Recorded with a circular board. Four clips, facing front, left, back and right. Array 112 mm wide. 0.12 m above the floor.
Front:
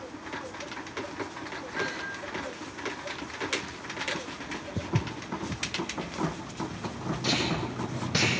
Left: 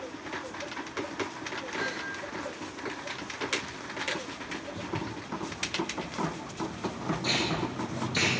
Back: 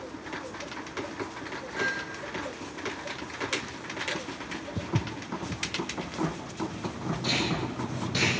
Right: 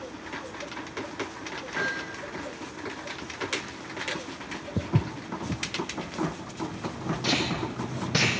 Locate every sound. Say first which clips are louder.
1.8 s hammering: right 4 dB, back 2 dB; 75° right, 8 m
4.8 s footsteps: right 8 dB, even; 85° right, 0.9 m
7.2 s tape being pulled: right 3 dB, front 1 dB; 65° right, 5.5 m